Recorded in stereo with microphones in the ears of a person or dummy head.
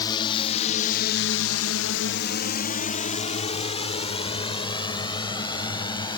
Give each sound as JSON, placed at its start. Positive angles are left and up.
{"t": 0.0, "sound": "a drone", "side_deg": 20}